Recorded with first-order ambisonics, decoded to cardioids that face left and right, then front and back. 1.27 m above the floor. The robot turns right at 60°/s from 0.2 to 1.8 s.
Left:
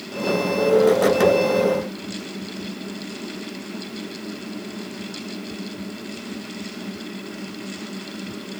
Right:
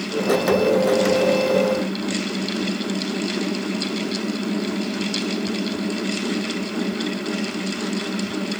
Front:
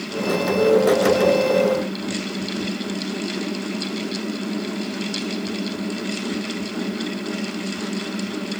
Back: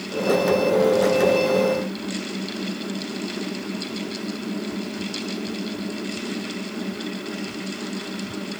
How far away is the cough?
I don't hear a cough.